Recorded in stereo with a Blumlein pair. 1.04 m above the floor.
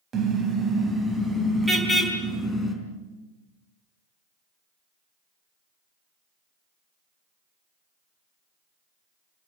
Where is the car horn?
25° right, 3 m; by 2.7 s straight ahead, 5 m.